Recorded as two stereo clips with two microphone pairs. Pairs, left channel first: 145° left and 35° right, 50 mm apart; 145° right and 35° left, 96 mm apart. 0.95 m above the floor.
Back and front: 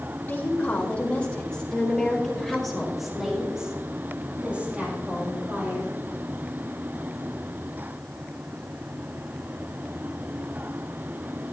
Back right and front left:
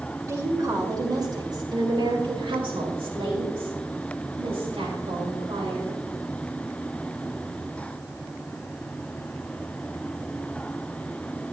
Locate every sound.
0.2 s a woman speaking: 90° left, 4 m; by 6.0 s 15° left, 4.5 m